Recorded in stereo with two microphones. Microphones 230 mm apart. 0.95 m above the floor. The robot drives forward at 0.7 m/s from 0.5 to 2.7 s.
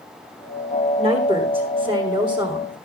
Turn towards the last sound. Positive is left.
turn(degrees=-20)  # may be behind; listen again after turning